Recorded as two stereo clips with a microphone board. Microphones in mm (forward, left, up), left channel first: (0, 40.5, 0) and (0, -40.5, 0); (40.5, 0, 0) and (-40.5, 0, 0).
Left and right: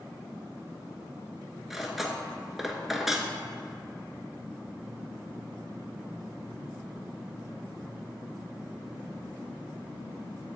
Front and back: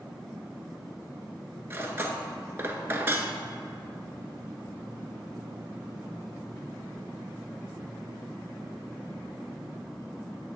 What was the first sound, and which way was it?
Cutlery clinking, 175° right.